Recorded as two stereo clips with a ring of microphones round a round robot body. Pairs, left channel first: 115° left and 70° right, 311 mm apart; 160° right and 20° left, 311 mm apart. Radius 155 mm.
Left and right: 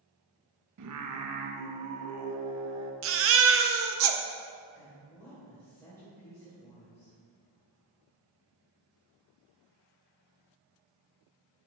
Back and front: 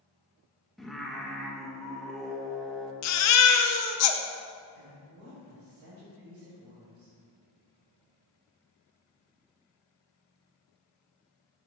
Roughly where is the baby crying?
Behind right.